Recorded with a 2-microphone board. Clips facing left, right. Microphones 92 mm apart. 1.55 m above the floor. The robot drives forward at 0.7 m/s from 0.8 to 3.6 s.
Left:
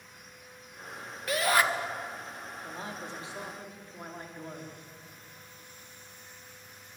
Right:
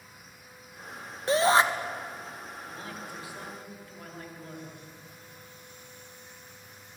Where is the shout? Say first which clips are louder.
Right 5 dB; 30° right (ahead or behind), 2.5 m; by 1.6 s 25° right (ahead or behind), 2.5 m.